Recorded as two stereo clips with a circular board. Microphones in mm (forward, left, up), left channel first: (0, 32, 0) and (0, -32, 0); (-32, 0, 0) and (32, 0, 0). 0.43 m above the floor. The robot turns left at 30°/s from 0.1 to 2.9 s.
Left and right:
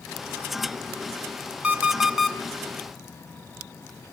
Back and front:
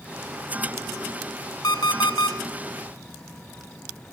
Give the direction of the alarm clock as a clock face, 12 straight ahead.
5 o'clock.